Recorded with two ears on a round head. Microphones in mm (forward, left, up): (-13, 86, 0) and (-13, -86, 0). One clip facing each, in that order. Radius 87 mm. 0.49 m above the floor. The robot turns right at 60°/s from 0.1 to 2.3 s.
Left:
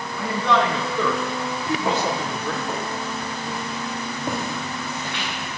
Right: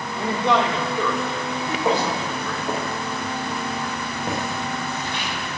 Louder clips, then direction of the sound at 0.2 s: Right 1 dB; 25° right (ahead or behind).